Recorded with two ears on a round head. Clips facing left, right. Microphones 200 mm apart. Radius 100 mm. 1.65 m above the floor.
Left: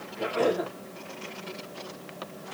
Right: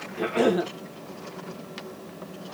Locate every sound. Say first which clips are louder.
0.2 s a cough: right 4 dB; 90° right, 2 m